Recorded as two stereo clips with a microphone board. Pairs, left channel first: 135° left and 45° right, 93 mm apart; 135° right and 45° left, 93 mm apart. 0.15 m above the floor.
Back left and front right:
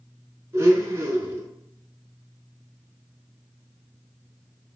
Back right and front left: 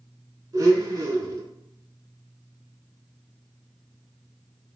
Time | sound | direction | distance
0.5 | a blender | 5° left | 0.7 m